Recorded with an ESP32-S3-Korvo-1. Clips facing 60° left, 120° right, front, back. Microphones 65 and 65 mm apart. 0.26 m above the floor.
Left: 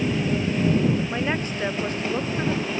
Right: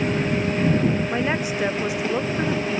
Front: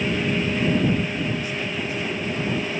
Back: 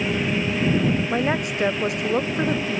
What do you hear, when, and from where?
1.1 s a woman speaking: 160° left